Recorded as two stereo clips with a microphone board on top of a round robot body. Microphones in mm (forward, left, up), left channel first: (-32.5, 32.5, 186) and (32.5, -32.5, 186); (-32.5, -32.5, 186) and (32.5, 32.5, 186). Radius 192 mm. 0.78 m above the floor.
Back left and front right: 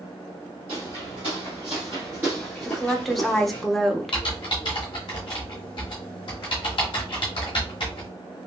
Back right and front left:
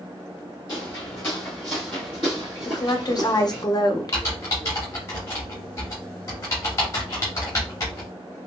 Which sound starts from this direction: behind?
Typing on a keyboard, at 4.1 s.